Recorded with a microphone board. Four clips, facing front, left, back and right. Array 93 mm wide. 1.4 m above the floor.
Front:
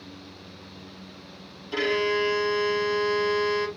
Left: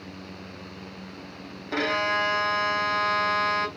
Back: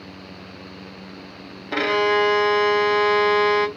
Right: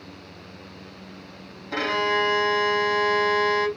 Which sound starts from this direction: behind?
A violin, at 1.7 s.